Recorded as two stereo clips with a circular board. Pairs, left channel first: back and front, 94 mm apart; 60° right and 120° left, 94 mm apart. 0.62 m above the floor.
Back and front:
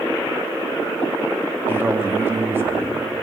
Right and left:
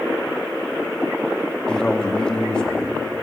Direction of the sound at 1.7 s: 5° left.